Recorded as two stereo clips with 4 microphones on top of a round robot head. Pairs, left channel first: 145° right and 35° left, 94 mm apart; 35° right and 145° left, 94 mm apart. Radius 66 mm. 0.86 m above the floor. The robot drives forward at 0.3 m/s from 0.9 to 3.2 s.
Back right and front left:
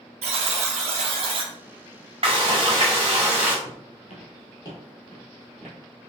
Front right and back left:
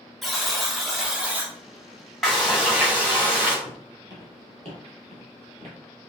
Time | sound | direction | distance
0.2 | a buzzer | 55° left | 0.5 m
2.2 | frying | 55° left | 0.8 m
3.6 | footsteps | 140° right | 1.3 m